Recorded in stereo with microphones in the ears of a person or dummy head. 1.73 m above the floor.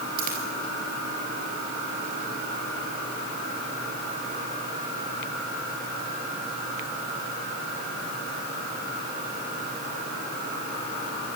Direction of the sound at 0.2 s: 50° right (ahead or behind).